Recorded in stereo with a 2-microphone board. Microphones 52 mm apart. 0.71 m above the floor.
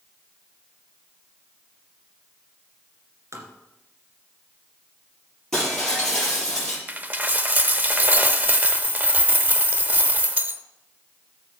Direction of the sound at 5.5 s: 10° left (ahead or behind).